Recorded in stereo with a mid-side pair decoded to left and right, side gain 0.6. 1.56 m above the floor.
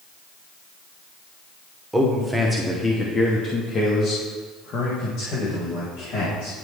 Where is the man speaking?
10° right, 1.2 m; by 6.5 s 65° left, 3 m.